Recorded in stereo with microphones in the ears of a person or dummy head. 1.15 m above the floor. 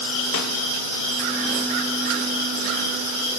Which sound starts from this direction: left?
A snare drum, at 0.3 s.